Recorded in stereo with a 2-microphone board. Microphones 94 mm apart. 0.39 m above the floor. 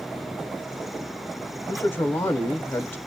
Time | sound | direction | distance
1.7 | a man speaking | 25° left (ahead or behind) | 0.9 m